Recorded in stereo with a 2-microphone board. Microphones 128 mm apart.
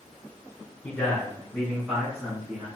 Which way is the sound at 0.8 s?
15° left (ahead or behind).